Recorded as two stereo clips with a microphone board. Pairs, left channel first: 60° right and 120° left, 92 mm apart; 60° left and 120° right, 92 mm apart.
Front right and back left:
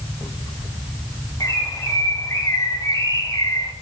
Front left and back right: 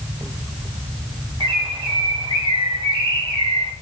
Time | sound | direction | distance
1.4 | a bird | 110° right | 1.3 m